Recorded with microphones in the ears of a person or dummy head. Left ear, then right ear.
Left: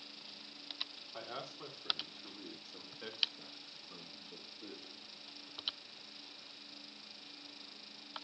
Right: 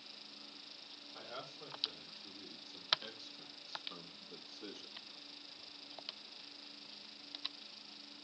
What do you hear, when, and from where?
1.1 s a man speaking: 50° left (ahead or behind), 3.5 m; by 5.1 s 75° right (ahead or behind), 1.8 m